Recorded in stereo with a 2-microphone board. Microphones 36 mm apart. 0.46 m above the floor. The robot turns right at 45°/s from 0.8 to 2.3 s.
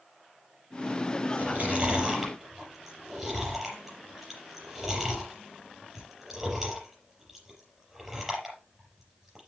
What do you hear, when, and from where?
1.4 s chewing: 50° right (ahead or behind), 5 m; by 9.5 s 10° right (ahead or behind), 5 m